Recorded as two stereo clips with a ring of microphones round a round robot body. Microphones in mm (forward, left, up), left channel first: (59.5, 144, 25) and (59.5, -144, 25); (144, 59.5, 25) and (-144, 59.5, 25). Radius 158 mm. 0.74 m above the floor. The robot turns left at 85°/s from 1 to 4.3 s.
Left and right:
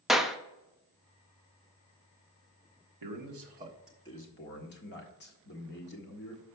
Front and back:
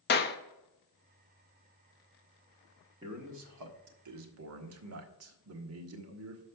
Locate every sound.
0.1 s a clap: straight ahead, 0.8 m
3.0 s a man speaking: 105° right, 1.5 m; by 6.4 s 145° left, 1.5 m